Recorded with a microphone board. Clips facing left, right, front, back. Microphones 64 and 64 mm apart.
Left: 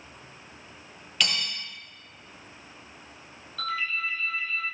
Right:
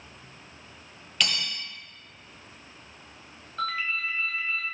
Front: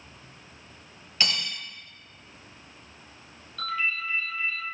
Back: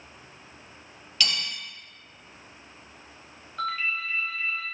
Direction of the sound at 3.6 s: 135° right.